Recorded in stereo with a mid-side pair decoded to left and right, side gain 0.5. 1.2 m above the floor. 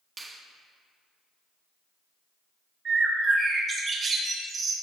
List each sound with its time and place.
0.2 s a finger snap: 30° right, 1.4 m
2.9 s a bird: 45° right, 2 m